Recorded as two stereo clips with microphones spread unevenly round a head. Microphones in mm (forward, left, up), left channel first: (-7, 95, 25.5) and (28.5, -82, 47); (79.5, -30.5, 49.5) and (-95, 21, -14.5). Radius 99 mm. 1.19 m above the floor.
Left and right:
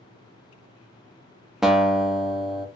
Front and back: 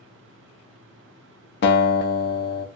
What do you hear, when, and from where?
1.6 s a guitar: 15° left, 0.8 m